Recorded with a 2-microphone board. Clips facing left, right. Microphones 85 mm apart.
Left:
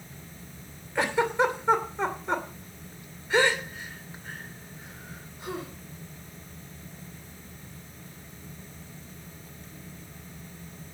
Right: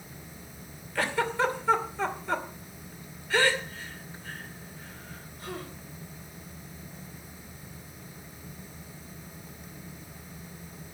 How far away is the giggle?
About 2.5 m.